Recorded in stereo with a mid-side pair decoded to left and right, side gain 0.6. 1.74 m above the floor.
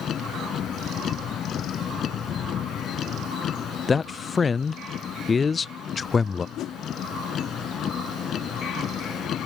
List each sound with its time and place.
0.0 s a vehicle: 45° left
3.9 s a man speaking: 25° left
6.6 s a whoosh: 60° left